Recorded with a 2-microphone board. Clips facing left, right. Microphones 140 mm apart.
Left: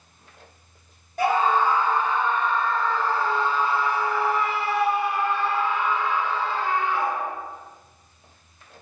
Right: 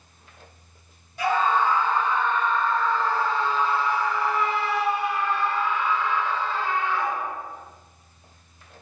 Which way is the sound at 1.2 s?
50° left (ahead or behind).